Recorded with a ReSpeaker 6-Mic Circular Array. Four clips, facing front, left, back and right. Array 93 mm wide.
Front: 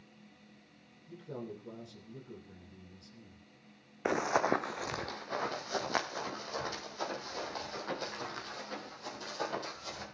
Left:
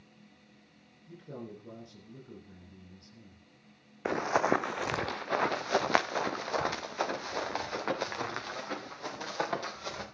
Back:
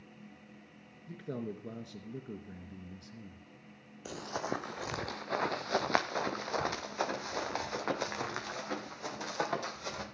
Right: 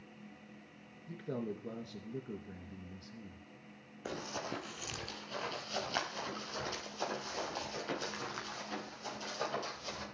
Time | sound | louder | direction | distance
1.1 | a man speaking | right 4 dB, back 4 dB | 145° right | 3 m
4.0 | running footsteps | left 13 dB, front 8 dB | 35° left | 0.7 m